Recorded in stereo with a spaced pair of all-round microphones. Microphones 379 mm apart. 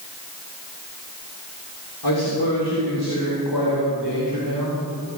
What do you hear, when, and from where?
2.0 s a man speaking: 75° left (ahead or behind), 3 m; by 4.9 s 65° left (ahead or behind), 5 m